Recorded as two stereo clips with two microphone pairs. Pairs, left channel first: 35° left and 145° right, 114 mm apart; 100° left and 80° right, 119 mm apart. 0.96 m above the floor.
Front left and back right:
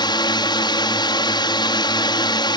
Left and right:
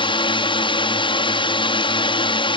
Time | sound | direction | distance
0.0 | a drone | 70° left | ?